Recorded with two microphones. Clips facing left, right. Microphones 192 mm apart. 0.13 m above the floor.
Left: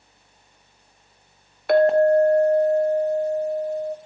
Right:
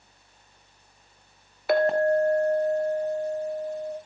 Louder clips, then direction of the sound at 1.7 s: Left 6 dB; centre (ahead or behind).